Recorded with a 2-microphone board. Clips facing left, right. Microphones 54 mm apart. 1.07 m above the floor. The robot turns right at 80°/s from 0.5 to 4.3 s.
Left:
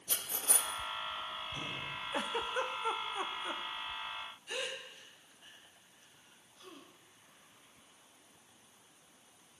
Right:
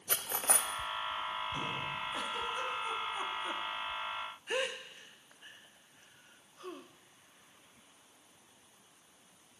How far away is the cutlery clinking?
About 0.6 m.